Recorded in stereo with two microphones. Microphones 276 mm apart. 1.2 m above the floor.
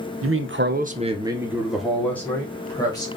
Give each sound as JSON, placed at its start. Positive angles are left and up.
{"t": 0.2, "sound": "a man speaking", "side_deg": -55, "distance_m": 0.6}